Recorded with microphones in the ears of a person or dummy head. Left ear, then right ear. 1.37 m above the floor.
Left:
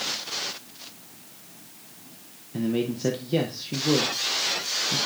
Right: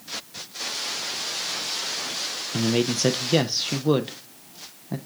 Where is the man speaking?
45° right (ahead or behind), 0.6 m.